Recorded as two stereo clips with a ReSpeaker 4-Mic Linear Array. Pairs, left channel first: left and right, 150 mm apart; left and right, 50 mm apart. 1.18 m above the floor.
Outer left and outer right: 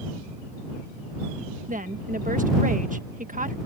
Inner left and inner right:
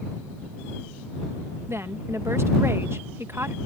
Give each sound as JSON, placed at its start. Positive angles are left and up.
{"t": 1.7, "sound": "a woman speaking", "side_deg": -60}